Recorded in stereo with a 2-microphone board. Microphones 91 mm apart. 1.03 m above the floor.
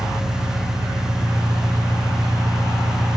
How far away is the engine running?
About 1.6 m.